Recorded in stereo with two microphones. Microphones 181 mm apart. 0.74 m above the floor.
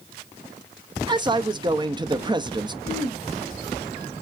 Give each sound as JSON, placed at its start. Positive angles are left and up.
{"t": 1.1, "sound": "a man speaking", "side_deg": -25, "distance_m": 0.5}
{"t": 2.8, "sound": "throat clearing", "side_deg": 45, "distance_m": 3.0}